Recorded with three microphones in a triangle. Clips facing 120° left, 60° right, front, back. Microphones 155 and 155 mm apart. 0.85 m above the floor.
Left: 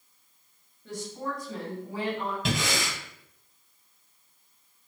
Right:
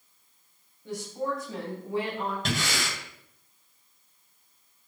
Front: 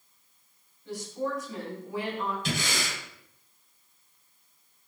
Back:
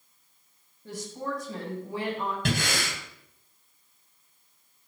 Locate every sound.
0.8 s a woman speaking: 135° right, 5 m; by 2.4 s 120° right, 6 m
2.5 s breathing: 150° right, 2 m